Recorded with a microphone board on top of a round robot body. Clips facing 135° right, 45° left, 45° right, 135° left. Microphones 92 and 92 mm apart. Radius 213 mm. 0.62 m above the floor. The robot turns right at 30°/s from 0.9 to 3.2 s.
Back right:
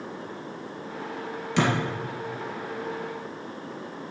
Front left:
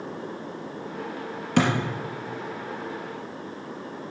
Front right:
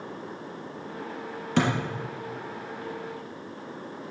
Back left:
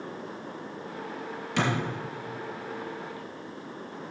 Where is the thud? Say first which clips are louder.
Front left 2 dB, front right 3 dB; straight ahead, 3 m; by 1.7 s 10° left, 3 m.